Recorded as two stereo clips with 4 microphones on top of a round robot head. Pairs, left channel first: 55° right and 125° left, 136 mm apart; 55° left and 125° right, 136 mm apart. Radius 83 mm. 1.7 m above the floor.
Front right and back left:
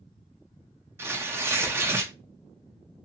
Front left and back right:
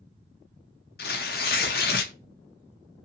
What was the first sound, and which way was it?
Tearing paper, 55° left.